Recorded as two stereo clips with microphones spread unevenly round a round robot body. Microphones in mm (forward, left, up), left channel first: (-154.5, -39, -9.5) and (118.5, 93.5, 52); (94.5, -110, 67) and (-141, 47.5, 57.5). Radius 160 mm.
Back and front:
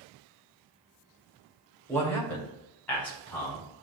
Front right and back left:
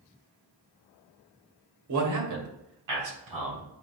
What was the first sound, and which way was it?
A man speaking, 130° left.